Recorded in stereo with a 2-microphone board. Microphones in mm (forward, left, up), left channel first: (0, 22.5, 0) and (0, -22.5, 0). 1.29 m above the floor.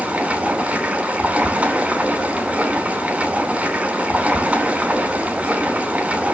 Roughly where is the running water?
Right.